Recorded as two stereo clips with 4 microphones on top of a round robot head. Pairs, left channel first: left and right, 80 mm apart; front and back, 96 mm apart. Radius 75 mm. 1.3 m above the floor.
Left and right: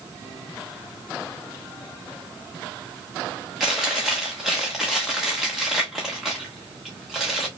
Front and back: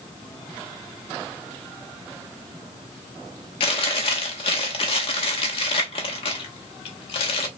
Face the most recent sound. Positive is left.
turn(degrees=0)